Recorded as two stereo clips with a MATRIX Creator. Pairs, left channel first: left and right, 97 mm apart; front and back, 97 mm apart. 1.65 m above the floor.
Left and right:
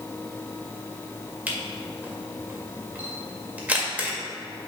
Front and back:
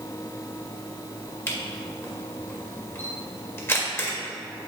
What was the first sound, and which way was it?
A camera shutter, 35° right.